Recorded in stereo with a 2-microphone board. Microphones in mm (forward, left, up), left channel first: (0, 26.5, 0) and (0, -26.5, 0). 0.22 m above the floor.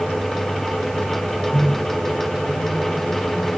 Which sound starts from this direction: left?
A microwave, at 1.5 s.